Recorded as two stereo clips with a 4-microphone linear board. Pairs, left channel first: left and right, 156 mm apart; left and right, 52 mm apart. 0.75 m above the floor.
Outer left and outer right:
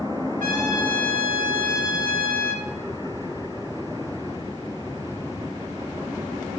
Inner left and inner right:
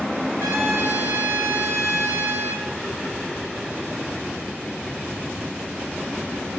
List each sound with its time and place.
0.4 s a trumpet: 70° right (ahead or behind), 1.9 m